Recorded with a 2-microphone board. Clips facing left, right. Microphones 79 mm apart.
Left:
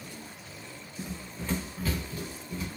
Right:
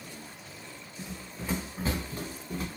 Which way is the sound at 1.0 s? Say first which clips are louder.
Left 2 dB; 15° left (ahead or behind).